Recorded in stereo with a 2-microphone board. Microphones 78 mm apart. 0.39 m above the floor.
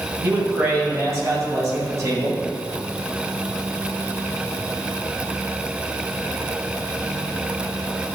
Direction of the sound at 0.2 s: 35° right (ahead or behind).